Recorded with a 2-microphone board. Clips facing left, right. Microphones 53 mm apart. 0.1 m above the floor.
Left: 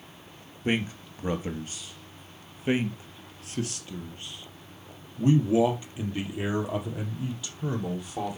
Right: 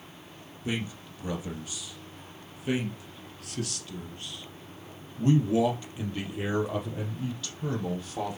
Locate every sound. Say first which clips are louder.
0.7 s a man speaking: left 5 dB; 45° left (ahead or behind), 2 m; by 8.4 s 5° left (ahead or behind), 4.5 m